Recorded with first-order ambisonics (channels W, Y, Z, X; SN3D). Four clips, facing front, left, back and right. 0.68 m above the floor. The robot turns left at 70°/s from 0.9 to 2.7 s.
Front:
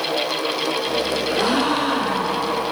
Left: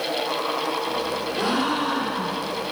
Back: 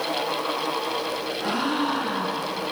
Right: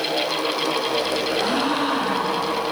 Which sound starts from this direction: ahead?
A gasp, at 1.3 s.